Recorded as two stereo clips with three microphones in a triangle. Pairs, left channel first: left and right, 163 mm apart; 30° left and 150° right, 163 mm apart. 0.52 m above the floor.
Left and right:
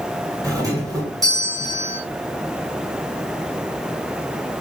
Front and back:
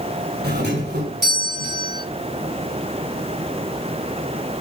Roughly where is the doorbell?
Behind.